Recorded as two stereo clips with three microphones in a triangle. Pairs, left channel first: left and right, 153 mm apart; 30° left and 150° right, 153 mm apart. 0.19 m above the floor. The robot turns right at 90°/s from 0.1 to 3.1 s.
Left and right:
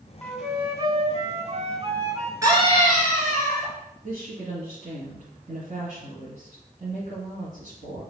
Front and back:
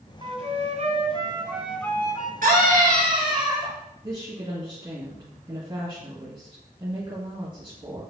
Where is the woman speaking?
100° right, 2.0 m.